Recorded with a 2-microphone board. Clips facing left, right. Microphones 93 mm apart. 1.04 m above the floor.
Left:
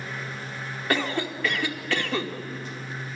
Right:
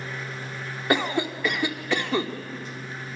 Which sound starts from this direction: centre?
A cough, at 0.9 s.